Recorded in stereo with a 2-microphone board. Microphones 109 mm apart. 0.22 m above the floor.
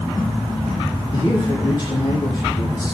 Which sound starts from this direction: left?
A man speaking, at 1.1 s.